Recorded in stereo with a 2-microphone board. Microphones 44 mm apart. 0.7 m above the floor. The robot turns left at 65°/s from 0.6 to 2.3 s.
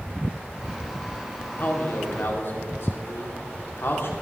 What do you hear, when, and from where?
1.6 s a man speaking: 125° left, 2 m; by 4.1 s 80° left, 2 m